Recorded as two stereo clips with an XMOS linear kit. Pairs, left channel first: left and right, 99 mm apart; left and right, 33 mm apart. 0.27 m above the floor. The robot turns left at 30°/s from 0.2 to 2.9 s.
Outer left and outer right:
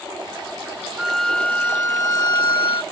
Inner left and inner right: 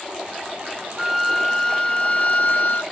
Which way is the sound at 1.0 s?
175° right.